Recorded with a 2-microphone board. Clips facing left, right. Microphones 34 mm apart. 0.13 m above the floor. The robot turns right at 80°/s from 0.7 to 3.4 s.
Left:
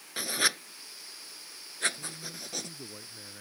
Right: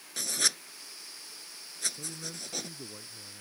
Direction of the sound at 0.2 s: 20° left (ahead or behind).